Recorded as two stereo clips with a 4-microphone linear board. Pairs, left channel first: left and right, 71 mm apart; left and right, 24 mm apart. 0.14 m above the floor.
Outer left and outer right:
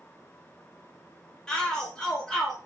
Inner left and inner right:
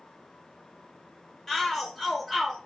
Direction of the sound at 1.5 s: 10° left (ahead or behind).